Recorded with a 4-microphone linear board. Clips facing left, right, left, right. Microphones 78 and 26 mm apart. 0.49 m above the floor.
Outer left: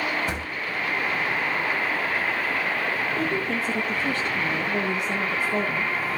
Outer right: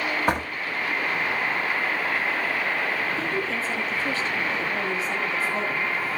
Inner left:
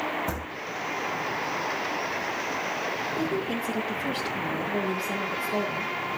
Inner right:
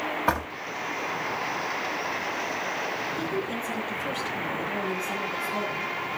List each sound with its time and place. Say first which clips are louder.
0.3 s a door slam: outer right 6 dB, inner right 7 dB; 45° right (ahead or behind), 2.5 m
3.2 s a woman speaking: outer left 1 dB, inner left 1 dB; 50° left (ahead or behind), 8.5 m